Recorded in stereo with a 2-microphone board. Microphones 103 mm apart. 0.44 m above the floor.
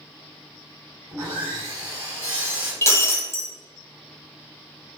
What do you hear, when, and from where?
1.1 s sawing: 25° right (ahead or behind), 1.8 m
2.8 s breaking glass: 25° left (ahead or behind), 0.6 m